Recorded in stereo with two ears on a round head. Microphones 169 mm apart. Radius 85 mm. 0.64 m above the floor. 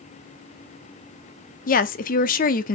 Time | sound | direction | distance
1.7 | a woman speaking | 45° left (ahead or behind) | 0.9 m